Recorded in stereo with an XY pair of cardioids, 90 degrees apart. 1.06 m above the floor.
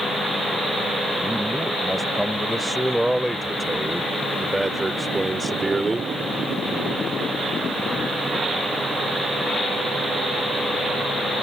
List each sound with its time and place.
1.2 s a man speaking: straight ahead; by 6.1 s 25° right